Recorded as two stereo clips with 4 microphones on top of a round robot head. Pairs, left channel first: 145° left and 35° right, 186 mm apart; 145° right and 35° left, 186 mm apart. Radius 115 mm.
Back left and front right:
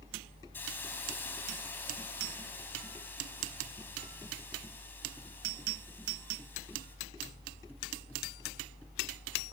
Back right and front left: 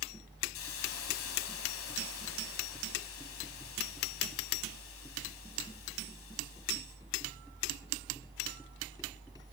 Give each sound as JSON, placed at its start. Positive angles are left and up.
{"t": 0.5, "sound": "a hiss", "azimuth_deg": -140, "distance_m": 4.0}